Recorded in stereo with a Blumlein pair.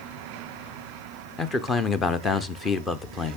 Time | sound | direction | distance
1.4 | a man speaking | 20° left | 1.0 m